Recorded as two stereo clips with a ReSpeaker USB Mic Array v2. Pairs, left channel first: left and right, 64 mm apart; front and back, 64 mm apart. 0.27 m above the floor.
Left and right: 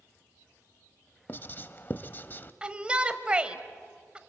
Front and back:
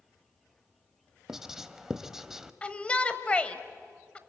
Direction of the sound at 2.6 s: 40° right.